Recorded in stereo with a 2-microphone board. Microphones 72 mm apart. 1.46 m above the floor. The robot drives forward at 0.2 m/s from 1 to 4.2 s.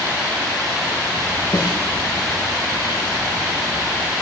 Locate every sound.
1.5 s a snare drum: 65° left (ahead or behind), 8 m